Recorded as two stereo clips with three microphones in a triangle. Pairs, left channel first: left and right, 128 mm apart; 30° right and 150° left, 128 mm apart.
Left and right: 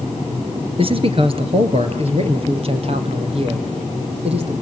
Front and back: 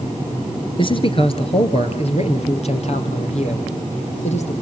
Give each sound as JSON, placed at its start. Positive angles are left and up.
{"t": 0.8, "sound": "a man speaking", "azimuth_deg": -65, "distance_m": 1.9}